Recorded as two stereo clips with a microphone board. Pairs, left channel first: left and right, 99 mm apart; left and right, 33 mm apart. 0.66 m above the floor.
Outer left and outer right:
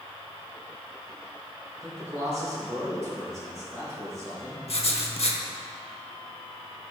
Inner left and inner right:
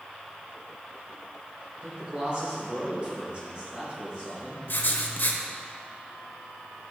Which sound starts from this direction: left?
Writing, at 4.7 s.